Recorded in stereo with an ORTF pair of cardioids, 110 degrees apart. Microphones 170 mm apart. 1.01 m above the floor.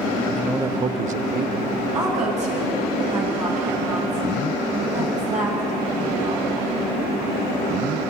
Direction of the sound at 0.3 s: 5° left.